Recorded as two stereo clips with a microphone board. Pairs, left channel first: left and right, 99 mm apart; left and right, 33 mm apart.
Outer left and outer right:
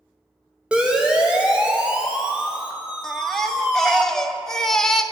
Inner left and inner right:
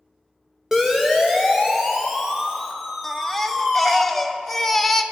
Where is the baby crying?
5° left (ahead or behind), 1.2 m.